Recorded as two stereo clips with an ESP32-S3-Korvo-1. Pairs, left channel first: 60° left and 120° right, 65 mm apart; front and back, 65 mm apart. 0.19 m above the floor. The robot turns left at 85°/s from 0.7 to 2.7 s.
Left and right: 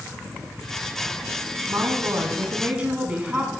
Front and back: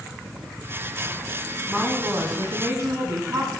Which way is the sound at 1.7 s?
100° right.